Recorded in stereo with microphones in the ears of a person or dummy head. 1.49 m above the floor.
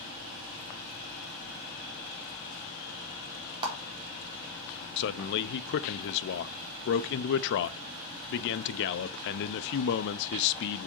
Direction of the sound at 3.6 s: 20° right (ahead or behind).